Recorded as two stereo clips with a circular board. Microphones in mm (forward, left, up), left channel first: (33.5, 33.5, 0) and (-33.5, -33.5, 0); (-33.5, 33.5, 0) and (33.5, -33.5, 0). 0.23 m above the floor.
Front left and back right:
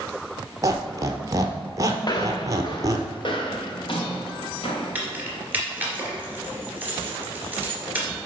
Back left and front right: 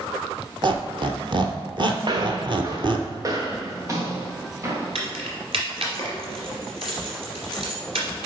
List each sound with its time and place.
0.6 s a squeak: 80° right, 0.9 m
2.0 s footsteps: 5° right, 1.1 m; by 4.9 s 20° left, 2.5 m
5.0 s keys jangling: 65° right, 2 m